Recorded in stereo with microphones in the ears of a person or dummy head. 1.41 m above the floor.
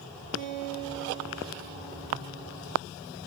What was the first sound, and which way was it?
A guitar, 65° right (ahead or behind).